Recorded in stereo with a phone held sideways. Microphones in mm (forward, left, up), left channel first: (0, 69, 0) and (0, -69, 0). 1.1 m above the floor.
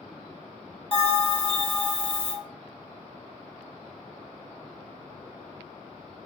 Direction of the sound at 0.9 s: 40° left (ahead or behind).